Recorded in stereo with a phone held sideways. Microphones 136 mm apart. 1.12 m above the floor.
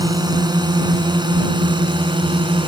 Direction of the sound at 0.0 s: 30° right (ahead or behind).